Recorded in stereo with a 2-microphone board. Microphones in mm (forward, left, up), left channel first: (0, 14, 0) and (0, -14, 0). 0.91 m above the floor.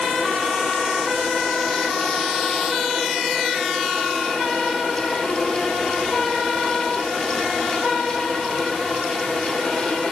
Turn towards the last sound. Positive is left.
No sound to turn to.